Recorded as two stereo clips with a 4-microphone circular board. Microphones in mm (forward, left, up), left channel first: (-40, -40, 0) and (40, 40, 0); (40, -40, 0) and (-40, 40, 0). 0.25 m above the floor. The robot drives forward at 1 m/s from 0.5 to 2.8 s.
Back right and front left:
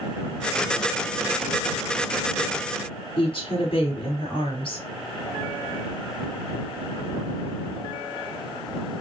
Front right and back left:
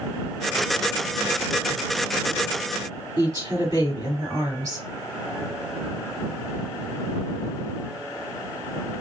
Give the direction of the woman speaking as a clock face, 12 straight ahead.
6 o'clock.